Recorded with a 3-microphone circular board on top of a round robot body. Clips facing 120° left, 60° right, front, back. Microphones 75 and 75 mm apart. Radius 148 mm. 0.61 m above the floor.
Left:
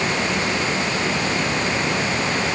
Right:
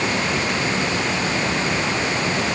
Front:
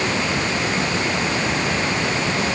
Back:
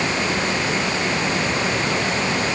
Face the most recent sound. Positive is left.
No sound to turn to.